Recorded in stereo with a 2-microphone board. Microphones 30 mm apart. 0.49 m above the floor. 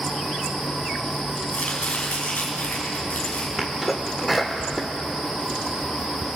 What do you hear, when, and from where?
1.5 s chopping: 55° left (ahead or behind), 4.5 m
3.6 s a sneeze: 5° right (ahead or behind), 1.2 m